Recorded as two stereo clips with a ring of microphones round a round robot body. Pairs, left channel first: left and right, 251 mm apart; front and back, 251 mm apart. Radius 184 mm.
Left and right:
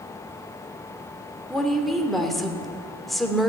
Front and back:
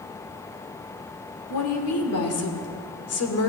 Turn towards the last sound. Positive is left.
turn(degrees=0)